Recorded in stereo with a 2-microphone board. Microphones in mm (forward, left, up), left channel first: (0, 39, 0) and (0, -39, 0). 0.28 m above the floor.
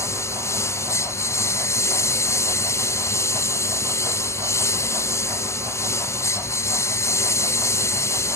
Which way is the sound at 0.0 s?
40° left (ahead or behind).